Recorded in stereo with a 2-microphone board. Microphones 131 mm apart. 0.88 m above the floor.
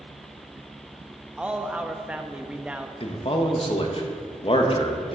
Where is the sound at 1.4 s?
10° right (ahead or behind), 0.6 m.